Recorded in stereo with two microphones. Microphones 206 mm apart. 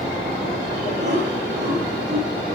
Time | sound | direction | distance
1.0 | laughter | 60° right (ahead or behind) | 3 m